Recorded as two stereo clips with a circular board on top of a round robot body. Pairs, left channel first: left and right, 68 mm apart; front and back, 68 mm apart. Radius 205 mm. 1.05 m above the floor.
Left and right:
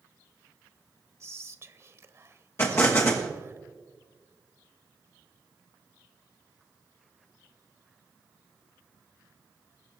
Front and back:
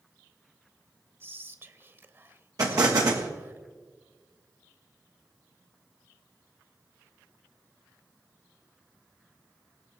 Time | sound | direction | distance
1.2 | whispering | 130° right | 1.3 m
2.6 | an explosion | 145° left | 1.1 m